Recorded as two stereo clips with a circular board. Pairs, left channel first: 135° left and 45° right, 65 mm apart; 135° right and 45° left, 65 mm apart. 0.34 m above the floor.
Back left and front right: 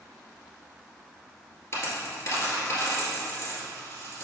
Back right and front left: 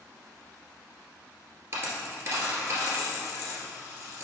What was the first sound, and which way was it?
A dropped coin, 90° left.